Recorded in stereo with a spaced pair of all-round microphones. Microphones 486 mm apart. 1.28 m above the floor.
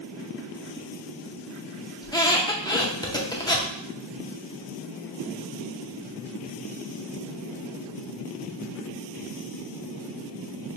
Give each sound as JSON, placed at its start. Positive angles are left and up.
{"t": 2.0, "sound": "a squeak", "side_deg": 10, "distance_m": 0.5}